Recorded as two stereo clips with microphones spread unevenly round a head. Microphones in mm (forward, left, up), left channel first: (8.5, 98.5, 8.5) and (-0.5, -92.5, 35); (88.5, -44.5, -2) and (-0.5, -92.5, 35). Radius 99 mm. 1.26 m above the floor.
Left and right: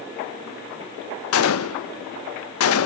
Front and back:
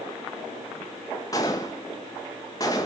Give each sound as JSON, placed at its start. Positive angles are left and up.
{"t": 1.3, "sound": "a gunshot", "azimuth_deg": 105, "distance_m": 0.9}